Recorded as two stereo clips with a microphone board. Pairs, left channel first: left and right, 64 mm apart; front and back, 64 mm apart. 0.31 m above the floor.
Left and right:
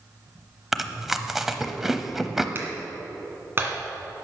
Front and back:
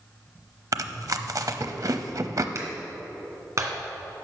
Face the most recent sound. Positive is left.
turn(degrees=-145)